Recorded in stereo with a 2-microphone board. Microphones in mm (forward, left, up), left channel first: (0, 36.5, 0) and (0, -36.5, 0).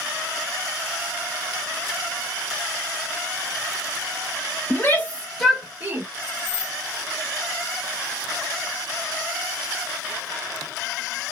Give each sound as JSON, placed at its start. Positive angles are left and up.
{"t": 4.7, "sound": "a shout", "side_deg": 35, "distance_m": 1.2}
{"t": 6.2, "sound": "keys jangling", "side_deg": -10, "distance_m": 1.1}